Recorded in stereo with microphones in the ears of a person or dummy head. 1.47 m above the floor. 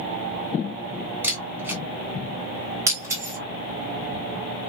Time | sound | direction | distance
1.2 | a camera shutter | 10° right (ahead or behind) | 1.4 m
2.9 | breaking glass | 15° right (ahead or behind) | 1.8 m